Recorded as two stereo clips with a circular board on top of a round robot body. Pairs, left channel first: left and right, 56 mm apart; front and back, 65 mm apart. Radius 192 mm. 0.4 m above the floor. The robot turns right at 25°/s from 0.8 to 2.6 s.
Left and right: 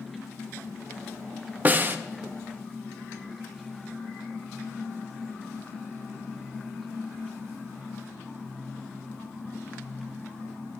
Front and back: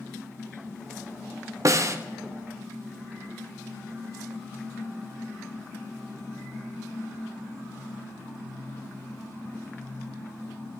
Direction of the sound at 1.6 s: 145° right.